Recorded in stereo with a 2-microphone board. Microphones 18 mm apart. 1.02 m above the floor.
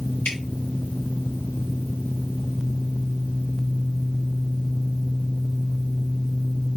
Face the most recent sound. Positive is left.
turn(degrees=70)  # may be behind; listen again after turning